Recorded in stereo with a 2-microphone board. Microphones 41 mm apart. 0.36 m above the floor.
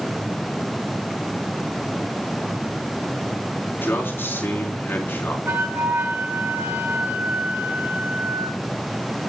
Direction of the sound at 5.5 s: 75° right (ahead or behind).